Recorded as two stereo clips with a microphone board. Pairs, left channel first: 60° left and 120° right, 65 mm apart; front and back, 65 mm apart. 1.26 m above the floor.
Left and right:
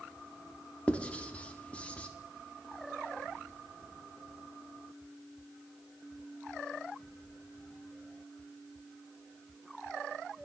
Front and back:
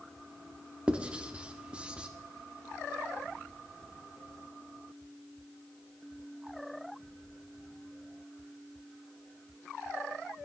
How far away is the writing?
About 0.9 m.